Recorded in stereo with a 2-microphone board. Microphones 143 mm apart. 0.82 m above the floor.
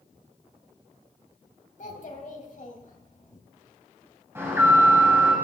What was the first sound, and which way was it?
A child speaking, 60° left (ahead or behind).